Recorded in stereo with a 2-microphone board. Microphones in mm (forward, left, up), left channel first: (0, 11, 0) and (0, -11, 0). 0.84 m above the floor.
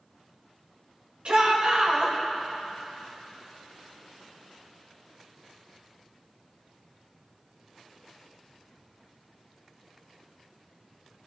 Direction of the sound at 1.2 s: 60° right (ahead or behind).